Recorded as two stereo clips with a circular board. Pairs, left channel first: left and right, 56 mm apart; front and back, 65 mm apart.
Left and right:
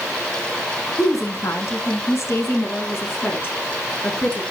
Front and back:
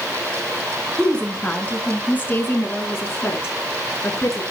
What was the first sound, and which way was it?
A woman speaking, 75° left.